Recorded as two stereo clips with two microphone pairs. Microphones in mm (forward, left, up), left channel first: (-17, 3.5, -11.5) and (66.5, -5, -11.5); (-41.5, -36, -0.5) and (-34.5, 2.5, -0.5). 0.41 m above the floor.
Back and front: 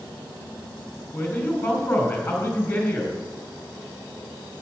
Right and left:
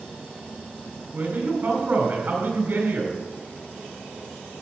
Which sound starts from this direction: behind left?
A man speaking, at 1.1 s.